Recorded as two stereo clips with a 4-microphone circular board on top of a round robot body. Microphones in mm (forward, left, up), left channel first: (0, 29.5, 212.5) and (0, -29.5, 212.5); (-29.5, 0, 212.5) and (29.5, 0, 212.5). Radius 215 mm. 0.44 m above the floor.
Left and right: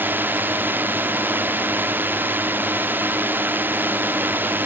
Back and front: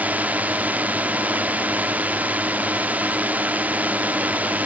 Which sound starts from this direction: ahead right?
A drone, at 0.0 s.